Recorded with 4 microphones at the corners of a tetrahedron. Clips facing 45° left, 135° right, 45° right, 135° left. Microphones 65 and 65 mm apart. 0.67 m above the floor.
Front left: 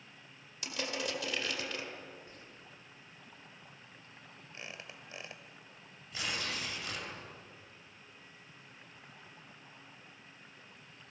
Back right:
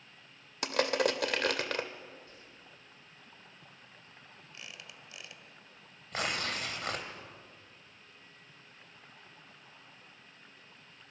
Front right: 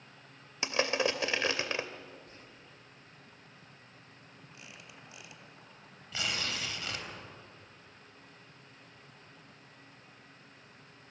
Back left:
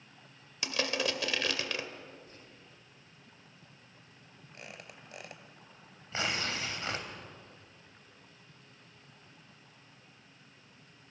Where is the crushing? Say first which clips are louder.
Back right 9 dB, front right 3 dB; 110° right, 1.8 m.